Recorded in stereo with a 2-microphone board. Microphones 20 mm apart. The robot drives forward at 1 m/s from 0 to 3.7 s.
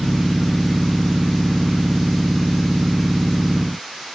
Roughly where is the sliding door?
I don't hear a sliding door.